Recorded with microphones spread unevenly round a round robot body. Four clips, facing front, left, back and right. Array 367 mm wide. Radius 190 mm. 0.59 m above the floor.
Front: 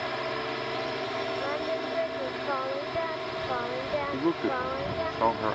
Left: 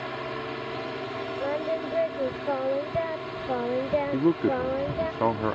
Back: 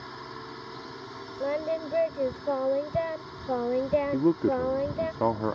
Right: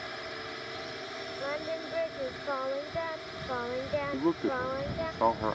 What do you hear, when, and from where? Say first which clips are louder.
0.0 s a drone: left 8 dB, front 9 dB; 65° left
1.4 s singing: left 6 dB, back 1 dB; 140° left
4.1 s a man speaking: left 5 dB, back 2 dB; 130° left